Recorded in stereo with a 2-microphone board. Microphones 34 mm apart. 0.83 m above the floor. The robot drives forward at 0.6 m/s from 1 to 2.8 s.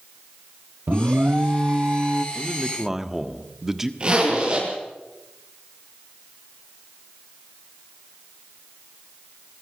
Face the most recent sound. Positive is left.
turn(degrees=-30)  # may be behind; listen again after turning